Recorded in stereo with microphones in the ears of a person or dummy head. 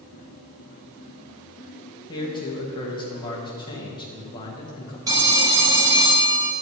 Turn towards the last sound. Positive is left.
turn(degrees=-15)  # may be behind; listen again after turning